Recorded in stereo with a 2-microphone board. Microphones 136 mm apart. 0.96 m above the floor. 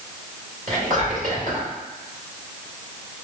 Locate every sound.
0.7 s whispering: 60° right (ahead or behind), 1.9 m